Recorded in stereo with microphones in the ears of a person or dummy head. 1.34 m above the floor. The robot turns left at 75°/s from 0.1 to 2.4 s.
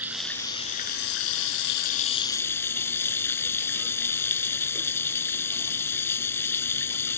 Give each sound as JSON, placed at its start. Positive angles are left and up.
{"t": 0.0, "sound": "running water", "azimuth_deg": -175}